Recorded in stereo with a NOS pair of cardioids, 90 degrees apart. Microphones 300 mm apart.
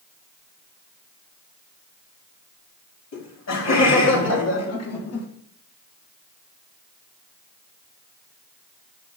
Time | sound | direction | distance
3.1 | laughter | 60° left | 4.5 m